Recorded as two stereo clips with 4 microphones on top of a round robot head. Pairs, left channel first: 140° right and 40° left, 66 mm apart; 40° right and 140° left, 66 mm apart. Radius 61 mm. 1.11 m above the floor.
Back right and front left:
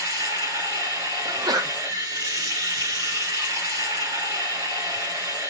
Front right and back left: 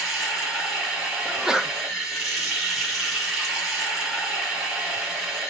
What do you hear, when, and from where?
0.0 s running water: 45° left, 3.5 m
1.2 s a sneeze: 55° left, 0.8 m